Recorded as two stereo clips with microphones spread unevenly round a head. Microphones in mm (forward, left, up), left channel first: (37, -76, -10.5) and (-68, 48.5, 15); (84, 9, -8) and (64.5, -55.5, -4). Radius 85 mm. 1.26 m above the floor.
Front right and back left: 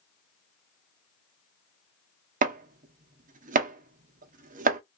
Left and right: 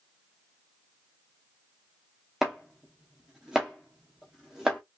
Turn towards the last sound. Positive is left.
turn(degrees=165)